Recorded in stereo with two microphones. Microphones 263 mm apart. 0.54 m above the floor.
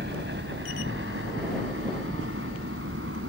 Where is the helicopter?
40° right (ahead or behind); by 3.3 s 50° right (ahead or behind).